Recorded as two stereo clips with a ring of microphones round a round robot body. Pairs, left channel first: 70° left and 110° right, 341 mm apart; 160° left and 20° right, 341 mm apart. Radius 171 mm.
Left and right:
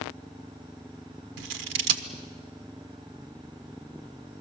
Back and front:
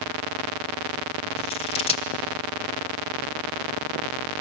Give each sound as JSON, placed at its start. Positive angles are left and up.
{"t": 1.4, "sound": "scissors", "azimuth_deg": -130, "distance_m": 1.3}